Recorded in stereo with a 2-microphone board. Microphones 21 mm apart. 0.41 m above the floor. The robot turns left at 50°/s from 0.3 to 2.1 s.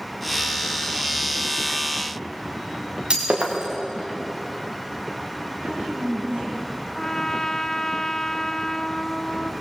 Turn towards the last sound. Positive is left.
turn(degrees=25)  # may be behind; listen again after turning